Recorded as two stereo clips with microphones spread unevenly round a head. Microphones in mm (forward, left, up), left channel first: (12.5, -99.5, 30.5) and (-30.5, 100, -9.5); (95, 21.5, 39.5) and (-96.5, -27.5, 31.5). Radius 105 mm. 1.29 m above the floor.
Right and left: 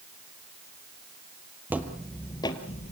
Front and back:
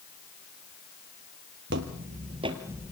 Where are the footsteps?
170° right, 1.7 m; by 2.9 s 75° right, 1.7 m.